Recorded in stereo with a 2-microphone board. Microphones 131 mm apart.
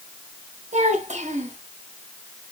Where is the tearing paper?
No tearing paper in this recording.